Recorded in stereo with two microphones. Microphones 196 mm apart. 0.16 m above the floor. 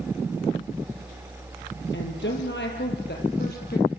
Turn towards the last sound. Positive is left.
turn(degrees=50)  # may be behind; listen again after turning